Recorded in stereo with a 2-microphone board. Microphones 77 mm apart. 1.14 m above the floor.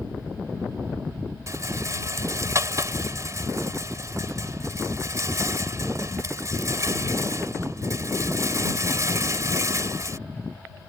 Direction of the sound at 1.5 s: 40° right (ahead or behind).